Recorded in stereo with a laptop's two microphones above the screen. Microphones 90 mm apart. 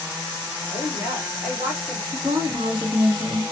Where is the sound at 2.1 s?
65° right (ahead or behind), 1.1 m.